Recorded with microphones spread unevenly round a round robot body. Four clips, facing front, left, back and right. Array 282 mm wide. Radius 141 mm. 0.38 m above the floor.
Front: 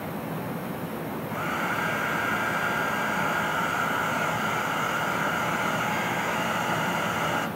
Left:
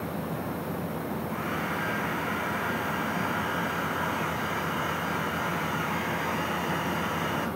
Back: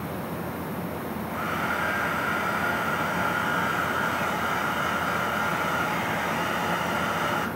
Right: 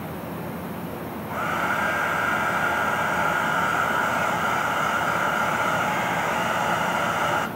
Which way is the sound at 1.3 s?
85° right.